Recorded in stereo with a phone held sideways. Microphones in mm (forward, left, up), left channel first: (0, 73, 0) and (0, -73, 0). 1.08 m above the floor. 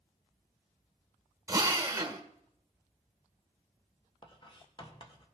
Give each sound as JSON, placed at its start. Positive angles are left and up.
{"t": 1.5, "sound": "a drill", "side_deg": -20, "distance_m": 1.4}
{"t": 4.2, "sound": "writing", "side_deg": 35, "distance_m": 1.4}